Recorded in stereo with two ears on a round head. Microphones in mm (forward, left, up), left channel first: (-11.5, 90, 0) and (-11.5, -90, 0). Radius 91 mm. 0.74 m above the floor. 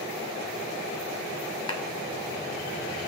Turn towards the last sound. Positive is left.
turn(degrees=20)  # may be behind; listen again after turning